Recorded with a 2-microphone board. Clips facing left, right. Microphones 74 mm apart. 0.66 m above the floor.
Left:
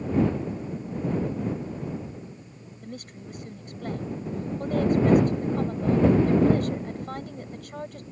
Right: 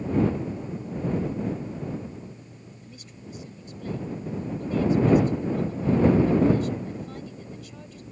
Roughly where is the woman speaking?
Left.